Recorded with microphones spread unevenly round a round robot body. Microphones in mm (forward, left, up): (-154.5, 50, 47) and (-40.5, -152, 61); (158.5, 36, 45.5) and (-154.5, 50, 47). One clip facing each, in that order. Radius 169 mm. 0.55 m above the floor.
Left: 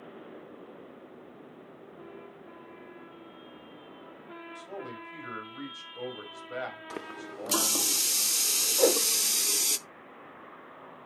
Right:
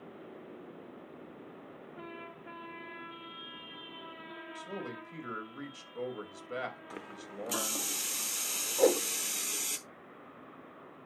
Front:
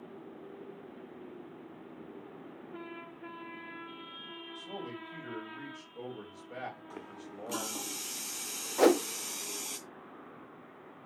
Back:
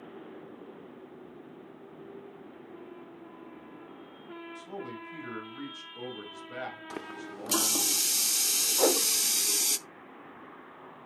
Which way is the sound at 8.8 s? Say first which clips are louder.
Left 1 dB, front 3 dB; 35° left.